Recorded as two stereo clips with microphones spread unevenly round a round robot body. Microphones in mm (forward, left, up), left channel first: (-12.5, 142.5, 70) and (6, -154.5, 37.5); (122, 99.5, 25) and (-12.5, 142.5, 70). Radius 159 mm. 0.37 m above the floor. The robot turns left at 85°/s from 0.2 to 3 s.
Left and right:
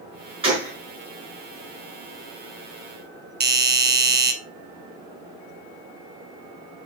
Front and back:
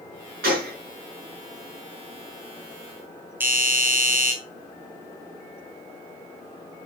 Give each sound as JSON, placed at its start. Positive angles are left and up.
{"t": 0.4, "sound": "a gunshot", "azimuth_deg": -155, "distance_m": 5.0}
{"t": 3.4, "sound": "a doorbell", "azimuth_deg": -110, "distance_m": 1.8}